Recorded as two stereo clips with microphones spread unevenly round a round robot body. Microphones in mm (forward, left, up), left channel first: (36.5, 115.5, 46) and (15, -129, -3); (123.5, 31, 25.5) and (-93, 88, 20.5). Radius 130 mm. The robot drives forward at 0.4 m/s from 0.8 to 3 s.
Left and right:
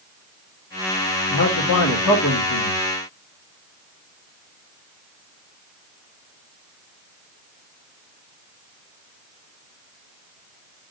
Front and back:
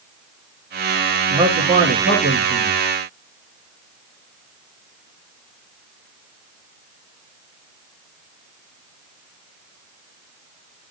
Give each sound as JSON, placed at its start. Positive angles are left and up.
{"t": 1.3, "sound": "a man speaking", "azimuth_deg": 120, "distance_m": 1.8}